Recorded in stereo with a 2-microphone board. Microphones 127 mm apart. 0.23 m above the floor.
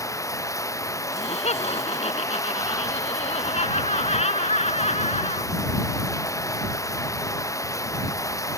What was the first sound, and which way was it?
Running water, 25° left (ahead or behind).